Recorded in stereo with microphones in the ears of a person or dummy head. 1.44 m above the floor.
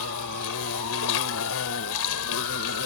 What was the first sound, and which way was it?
An insect, 80° left.